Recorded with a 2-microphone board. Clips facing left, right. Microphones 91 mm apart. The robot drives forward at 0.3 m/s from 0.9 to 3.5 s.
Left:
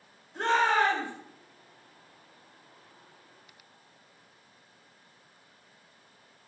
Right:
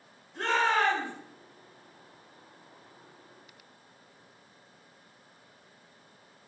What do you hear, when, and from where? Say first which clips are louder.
0.3 s a shout: left 2 dB; 30° left (ahead or behind), 1.2 m